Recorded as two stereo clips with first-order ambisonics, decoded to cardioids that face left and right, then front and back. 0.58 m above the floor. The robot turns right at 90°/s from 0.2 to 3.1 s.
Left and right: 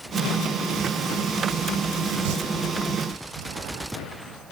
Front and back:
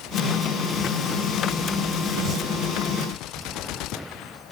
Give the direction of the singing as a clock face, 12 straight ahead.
3 o'clock.